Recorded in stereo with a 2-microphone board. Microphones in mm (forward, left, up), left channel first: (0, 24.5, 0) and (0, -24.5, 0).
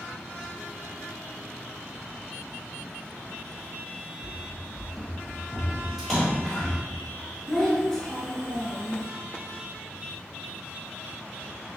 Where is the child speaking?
5° left (ahead or behind), 1.2 m.